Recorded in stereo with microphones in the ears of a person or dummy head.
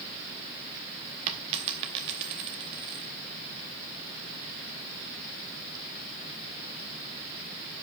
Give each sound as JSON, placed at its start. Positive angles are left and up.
{"t": 1.3, "sound": "a dropped coin", "side_deg": -35, "distance_m": 1.1}